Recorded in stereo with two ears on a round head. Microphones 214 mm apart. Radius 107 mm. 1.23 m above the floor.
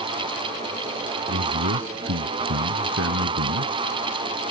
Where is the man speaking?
55° right (ahead or behind).